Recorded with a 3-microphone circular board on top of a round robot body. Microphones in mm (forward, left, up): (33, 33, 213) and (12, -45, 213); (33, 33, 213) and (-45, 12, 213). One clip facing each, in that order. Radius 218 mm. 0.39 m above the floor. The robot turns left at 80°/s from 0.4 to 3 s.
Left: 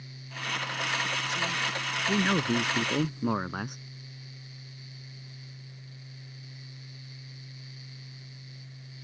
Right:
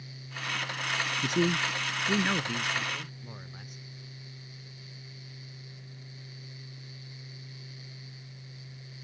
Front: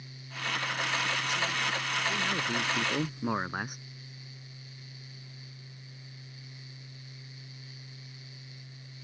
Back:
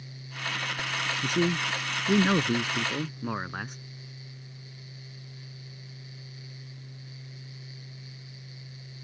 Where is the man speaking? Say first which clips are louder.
Right 4 dB, back 5 dB; 125° right; by 3.8 s 95° left.